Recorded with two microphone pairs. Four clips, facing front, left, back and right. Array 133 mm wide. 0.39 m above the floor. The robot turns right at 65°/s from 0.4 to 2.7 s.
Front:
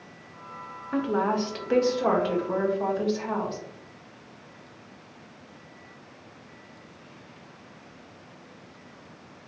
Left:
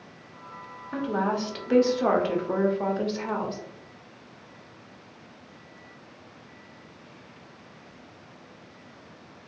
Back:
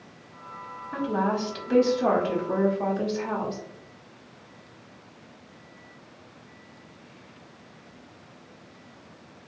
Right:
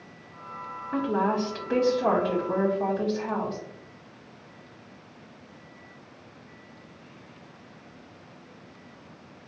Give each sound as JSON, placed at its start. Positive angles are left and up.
{"t": 0.9, "sound": "a woman speaking", "azimuth_deg": -5, "distance_m": 1.0}